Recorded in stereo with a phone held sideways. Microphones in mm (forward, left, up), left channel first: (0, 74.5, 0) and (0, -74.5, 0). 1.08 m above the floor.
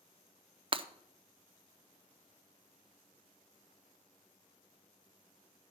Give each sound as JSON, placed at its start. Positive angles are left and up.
{"t": 0.7, "sound": "breaking glass", "side_deg": -35, "distance_m": 0.6}